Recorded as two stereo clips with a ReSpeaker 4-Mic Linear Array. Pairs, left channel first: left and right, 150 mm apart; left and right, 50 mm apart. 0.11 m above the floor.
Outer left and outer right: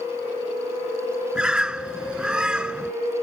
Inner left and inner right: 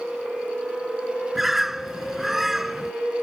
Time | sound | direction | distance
1.4 | a bird | 5° right (ahead or behind) | ?